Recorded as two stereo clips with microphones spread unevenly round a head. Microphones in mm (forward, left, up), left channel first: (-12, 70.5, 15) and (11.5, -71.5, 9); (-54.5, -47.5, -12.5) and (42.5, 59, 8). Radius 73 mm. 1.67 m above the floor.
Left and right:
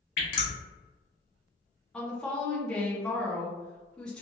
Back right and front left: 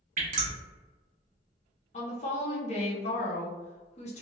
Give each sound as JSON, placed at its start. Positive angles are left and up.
{"t": 0.2, "sound": "dripping", "azimuth_deg": 75, "distance_m": 1.0}
{"t": 1.9, "sound": "a woman speaking", "azimuth_deg": 180, "distance_m": 0.9}